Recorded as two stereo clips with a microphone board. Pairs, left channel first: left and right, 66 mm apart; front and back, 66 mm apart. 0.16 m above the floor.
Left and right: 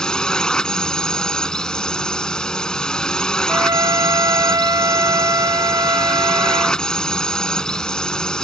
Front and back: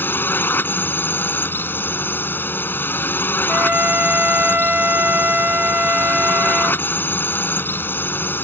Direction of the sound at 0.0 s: 20° left.